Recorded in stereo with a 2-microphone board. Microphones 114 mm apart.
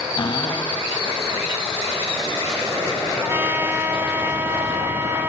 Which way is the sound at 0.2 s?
45° left (ahead or behind).